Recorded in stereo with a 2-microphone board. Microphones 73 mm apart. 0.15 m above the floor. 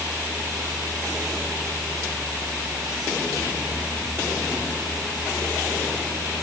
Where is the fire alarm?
I don't hear a fire alarm.